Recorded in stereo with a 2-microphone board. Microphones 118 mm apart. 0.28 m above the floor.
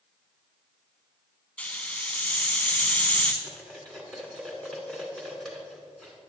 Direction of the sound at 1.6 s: 10° left (ahead or behind).